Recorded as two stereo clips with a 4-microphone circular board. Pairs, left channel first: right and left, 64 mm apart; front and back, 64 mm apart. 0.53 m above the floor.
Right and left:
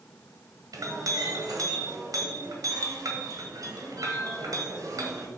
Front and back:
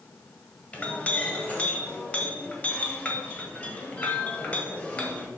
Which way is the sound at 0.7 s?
70° left.